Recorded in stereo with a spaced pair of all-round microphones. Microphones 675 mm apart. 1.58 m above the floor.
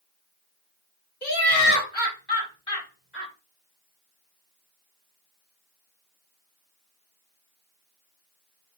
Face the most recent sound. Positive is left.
turn(degrees=15)  # may be behind; listen again after turning